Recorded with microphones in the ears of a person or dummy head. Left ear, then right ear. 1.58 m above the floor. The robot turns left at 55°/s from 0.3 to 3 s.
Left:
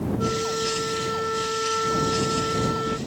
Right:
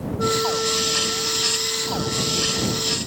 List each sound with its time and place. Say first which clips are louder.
0.2 s a flute: right 6 dB; 165° right; by 3.0 s 50° left